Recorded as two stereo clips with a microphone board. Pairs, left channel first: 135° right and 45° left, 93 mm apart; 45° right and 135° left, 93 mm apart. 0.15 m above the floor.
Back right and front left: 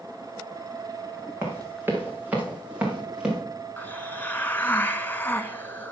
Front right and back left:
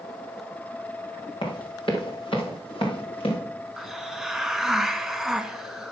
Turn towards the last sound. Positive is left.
turn(degrees=-145)